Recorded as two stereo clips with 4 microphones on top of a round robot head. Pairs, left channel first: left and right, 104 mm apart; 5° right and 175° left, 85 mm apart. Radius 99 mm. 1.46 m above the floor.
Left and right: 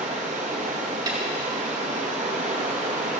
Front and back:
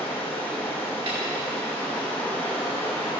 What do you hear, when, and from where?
0.0 s running water: 80° right, 1.6 m
1.1 s a snare drum: 140° right, 3 m